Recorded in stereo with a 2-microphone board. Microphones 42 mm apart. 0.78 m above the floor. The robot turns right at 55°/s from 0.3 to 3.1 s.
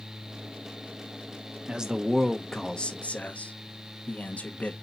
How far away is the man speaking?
About 0.7 m.